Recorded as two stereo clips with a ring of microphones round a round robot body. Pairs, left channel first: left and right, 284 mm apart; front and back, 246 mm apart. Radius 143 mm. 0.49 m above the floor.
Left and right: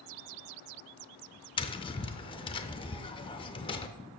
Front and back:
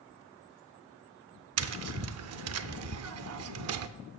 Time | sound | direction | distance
1.6 | tapping | 165° left | 0.6 m